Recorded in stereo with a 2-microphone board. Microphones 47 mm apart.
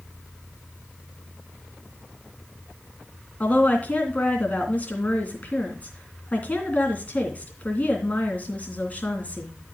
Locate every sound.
3.4 s a woman speaking: 35° left (ahead or behind), 3 m